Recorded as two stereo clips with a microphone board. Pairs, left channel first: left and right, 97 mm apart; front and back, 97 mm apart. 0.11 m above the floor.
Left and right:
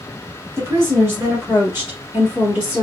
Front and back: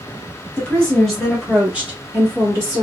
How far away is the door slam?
I don't hear a door slam.